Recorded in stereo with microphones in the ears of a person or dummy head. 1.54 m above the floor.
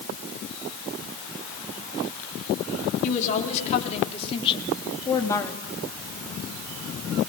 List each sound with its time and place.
3.0 s a woman speaking: 45° left (ahead or behind), 4 m; by 5.6 s 15° left (ahead or behind), 2.5 m